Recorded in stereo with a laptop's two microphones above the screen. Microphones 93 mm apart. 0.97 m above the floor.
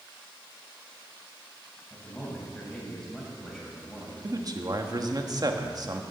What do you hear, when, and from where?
1.9 s a man speaking: 5° left (ahead or behind), 6.5 m
4.2 s a man speaking: 45° right (ahead or behind), 1.2 m